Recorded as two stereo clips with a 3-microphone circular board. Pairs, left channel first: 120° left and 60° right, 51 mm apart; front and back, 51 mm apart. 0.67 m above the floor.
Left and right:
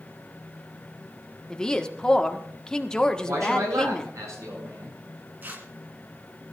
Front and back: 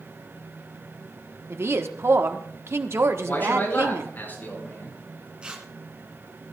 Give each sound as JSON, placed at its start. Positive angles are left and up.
{"t": 1.5, "sound": "a woman speaking", "azimuth_deg": -170, "distance_m": 1.2}
{"t": 3.2, "sound": "a man speaking", "azimuth_deg": -55, "distance_m": 8.0}
{"t": 5.4, "sound": "tearing paper", "azimuth_deg": -110, "distance_m": 2.0}